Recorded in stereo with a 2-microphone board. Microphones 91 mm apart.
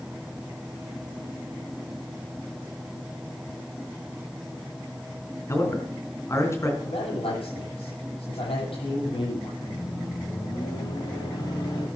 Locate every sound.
5.5 s a man speaking: 30° left (ahead or behind), 3 m
6.8 s a man speaking: 75° left (ahead or behind), 9.5 m
9.6 s a microwave: 50° left (ahead or behind), 7 m